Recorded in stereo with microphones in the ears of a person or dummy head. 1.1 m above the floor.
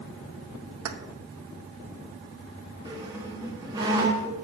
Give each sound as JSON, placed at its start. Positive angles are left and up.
{"t": 0.8, "sound": "keys jangling", "side_deg": -90, "distance_m": 0.9}
{"t": 2.9, "sound": "a squeak", "side_deg": -20, "distance_m": 1.4}